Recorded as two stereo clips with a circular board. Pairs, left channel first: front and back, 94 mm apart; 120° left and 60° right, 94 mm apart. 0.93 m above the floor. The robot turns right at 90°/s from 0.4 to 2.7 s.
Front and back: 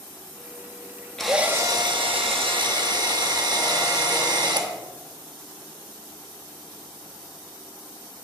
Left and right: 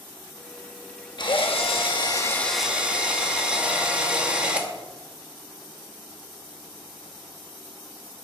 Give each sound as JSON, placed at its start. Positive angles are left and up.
{"t": 1.2, "sound": "a drill", "azimuth_deg": 85, "distance_m": 1.1}